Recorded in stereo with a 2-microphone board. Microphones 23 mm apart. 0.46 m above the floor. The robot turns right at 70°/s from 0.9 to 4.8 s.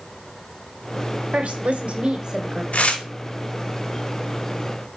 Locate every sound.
1.3 s a woman speaking: 105° right, 1.3 m; by 2.6 s 15° right, 1.3 m
2.7 s tearing paper: 60° left (ahead or behind), 0.9 m; by 3.0 s 45° left (ahead or behind), 0.9 m